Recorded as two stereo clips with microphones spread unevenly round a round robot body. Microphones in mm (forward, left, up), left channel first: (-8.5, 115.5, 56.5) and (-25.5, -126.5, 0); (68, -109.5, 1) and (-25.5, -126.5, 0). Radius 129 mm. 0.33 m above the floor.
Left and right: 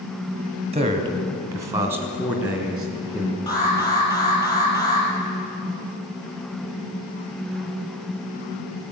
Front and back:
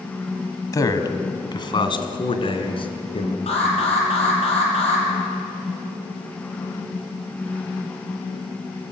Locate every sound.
0.7 s a man speaking: 40° right, 2 m; by 3.4 s 10° right, 4 m
3.5 s an alarm: 10° left, 7 m